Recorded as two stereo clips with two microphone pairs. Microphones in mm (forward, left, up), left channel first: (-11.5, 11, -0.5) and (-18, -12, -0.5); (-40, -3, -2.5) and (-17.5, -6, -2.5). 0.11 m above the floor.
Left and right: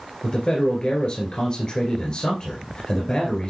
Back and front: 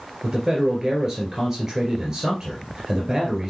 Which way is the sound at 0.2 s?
45° left.